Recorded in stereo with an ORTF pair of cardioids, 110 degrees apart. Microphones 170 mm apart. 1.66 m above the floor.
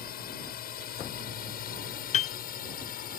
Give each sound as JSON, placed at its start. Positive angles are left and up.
{"t": 0.0, "sound": "a drone", "azimuth_deg": 65}
{"t": 2.1, "sound": "a piano", "azimuth_deg": 45}